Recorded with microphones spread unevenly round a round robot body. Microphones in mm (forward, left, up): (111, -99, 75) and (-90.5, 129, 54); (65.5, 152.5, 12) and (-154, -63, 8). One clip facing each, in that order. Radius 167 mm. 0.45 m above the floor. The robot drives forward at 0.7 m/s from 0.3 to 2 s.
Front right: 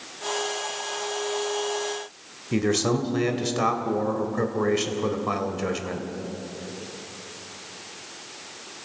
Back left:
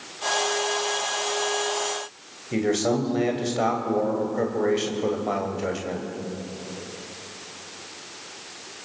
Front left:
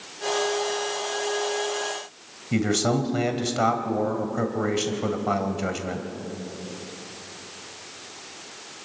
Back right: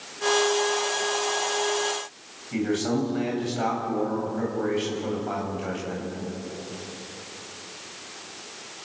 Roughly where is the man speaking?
Ahead.